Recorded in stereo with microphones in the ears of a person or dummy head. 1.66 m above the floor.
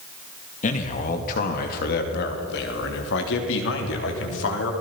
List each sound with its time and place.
0.6 s a man speaking: 45° left (ahead or behind), 2 m; by 4.7 s 80° left, 3.5 m